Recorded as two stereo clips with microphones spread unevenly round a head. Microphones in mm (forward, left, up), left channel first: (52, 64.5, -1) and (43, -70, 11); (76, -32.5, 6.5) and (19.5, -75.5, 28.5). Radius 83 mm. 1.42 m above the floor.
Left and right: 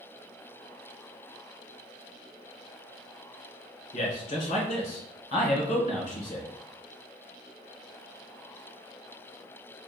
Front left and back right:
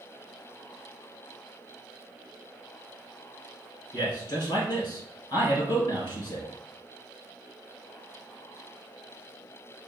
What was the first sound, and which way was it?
A man speaking, 65° left.